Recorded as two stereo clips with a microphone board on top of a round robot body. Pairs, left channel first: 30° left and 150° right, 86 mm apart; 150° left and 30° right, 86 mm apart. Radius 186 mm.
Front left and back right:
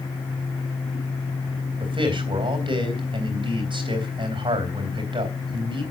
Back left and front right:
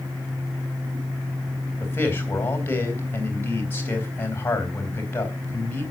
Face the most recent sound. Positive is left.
turn(degrees=-145)